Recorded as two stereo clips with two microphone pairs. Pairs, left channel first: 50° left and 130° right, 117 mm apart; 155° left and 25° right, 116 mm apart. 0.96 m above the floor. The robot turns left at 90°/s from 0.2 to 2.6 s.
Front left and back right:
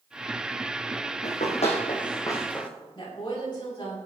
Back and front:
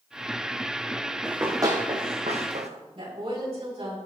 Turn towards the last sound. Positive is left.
turn(degrees=0)